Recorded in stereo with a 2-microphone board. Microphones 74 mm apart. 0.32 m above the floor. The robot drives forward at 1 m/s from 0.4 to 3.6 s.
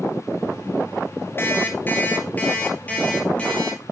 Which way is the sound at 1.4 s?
30° left (ahead or behind).